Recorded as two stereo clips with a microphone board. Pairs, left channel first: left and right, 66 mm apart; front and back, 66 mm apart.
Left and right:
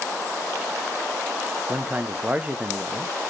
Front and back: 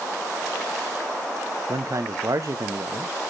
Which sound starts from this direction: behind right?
A man speaking, at 1.7 s.